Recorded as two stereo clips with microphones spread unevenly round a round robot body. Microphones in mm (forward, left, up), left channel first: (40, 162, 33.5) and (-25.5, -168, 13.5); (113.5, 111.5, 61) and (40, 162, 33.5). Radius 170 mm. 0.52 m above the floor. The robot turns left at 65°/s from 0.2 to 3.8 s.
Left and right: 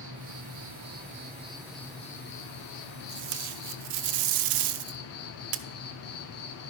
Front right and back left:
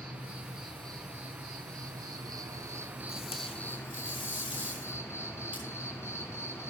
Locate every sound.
0.0 s an insect: 90° right, 1.1 m; by 6.7 s 35° left, 1.1 m
3.1 s tape being pulled: 40° right, 0.5 m; by 5.6 s 85° right, 0.5 m